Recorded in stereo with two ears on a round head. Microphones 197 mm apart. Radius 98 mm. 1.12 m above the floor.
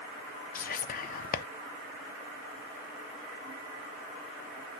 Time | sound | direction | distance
0.6 | whispering | 40° left (ahead or behind) | 0.5 m